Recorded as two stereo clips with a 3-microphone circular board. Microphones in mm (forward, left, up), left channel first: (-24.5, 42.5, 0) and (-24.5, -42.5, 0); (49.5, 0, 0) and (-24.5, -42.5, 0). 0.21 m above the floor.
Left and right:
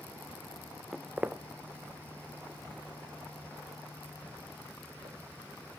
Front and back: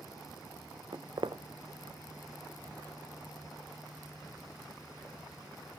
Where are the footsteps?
Straight behind, 0.6 m; by 5.8 s 95° right, 3.5 m.